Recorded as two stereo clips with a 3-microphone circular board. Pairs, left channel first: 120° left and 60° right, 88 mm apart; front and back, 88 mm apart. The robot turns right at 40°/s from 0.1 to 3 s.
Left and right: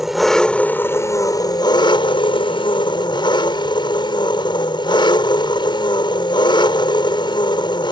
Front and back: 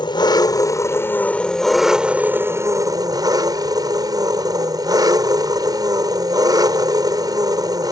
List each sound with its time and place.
0.0 s an engine running: 25° left; by 7.9 s 140° left